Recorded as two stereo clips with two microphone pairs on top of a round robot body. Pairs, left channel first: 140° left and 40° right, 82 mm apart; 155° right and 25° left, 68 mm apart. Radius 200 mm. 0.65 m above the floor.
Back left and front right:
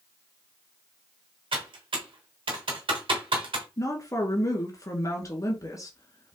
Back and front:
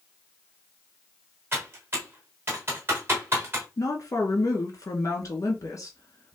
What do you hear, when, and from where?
1.5 s typing on a keyboard: 35° right, 1.4 m
3.8 s a woman speaking: 175° right, 1.9 m